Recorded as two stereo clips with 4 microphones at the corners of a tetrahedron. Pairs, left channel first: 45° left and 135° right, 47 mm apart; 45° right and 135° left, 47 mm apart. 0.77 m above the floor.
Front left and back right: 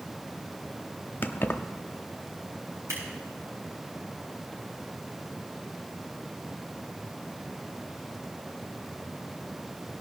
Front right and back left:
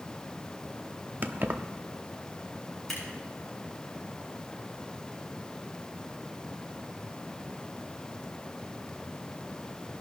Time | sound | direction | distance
1.2 | keys jangling | 90° left | 0.7 m
2.9 | scissors | 130° right | 7 m